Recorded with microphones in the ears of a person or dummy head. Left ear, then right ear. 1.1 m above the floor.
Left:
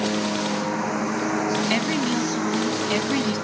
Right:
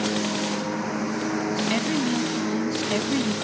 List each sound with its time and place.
0.0 s a lawn mower: 15° left (ahead or behind); by 3.4 s 25° left (ahead or behind)
1.7 s a woman speaking: 30° left (ahead or behind)